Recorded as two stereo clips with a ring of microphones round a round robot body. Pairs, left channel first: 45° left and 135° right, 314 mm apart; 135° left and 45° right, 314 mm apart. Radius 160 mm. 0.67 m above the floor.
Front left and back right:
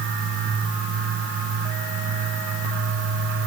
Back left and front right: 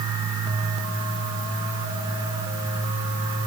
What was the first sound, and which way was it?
Only background noise.